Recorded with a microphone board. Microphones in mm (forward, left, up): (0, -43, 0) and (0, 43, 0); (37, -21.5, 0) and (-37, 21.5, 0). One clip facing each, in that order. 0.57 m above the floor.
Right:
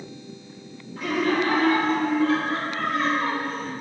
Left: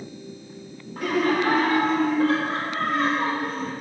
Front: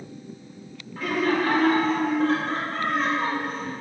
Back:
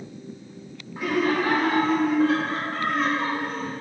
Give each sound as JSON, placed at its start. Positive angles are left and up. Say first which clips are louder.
{"t": 1.0, "sound": "laughter", "louder": "left 1 dB, even", "azimuth_deg": 85, "distance_m": 2.0}